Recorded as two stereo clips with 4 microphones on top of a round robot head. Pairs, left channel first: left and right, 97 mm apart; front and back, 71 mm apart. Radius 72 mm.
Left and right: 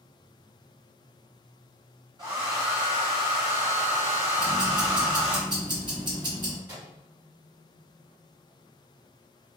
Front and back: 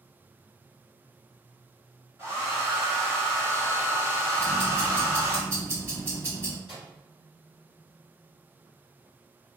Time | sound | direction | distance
2.2 | a hair dryer | 125° right | 1.4 m
4.4 | ticking | 120° right | 1.4 m
6.7 | a microwave | 25° right | 1.3 m